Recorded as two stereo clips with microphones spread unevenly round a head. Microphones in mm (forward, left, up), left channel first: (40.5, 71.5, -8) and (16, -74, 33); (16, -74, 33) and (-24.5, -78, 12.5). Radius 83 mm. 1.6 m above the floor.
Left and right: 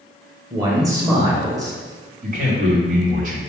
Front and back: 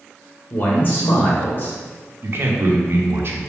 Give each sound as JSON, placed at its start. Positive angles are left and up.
{"t": 0.5, "sound": "a man speaking", "azimuth_deg": -35, "distance_m": 1.4}
{"t": 2.2, "sound": "a man speaking", "azimuth_deg": -135, "distance_m": 0.9}